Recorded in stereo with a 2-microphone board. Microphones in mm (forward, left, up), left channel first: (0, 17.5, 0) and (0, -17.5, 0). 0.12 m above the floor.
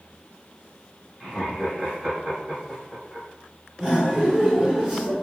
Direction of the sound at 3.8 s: 5° left (ahead or behind).